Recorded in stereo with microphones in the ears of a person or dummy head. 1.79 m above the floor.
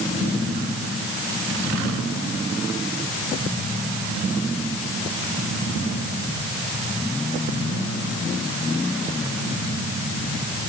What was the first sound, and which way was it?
Only background noise.